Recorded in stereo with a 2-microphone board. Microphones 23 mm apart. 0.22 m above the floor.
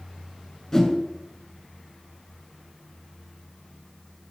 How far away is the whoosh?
About 1.7 m.